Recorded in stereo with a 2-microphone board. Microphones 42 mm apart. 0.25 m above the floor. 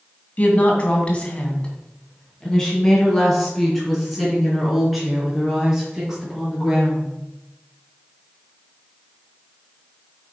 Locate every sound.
0.4 s a woman speaking: 35° left (ahead or behind), 2 m; by 7.1 s 10° right (ahead or behind), 5 m